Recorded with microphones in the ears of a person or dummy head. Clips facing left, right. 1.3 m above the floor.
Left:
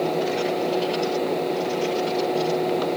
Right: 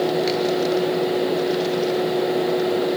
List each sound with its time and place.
Only background noise.